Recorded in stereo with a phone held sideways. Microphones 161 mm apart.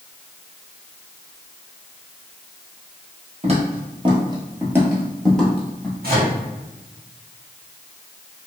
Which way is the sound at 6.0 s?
70° right (ahead or behind).